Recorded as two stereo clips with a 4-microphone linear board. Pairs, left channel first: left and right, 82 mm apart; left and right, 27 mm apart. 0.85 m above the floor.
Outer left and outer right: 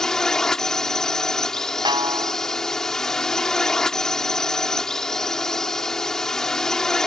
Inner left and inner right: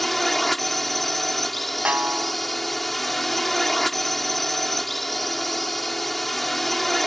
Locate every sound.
0.0 s a drone: 5° left (ahead or behind)
1.9 s a snare drum: 70° right (ahead or behind)